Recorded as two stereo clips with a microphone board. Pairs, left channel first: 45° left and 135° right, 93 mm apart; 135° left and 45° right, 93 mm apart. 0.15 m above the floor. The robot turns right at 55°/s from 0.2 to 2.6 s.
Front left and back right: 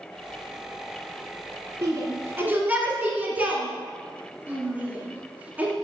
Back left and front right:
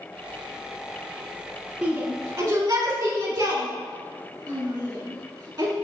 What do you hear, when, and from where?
1.8 s a shout: 120° right, 2.0 m; by 5.7 s 75° right, 2.0 m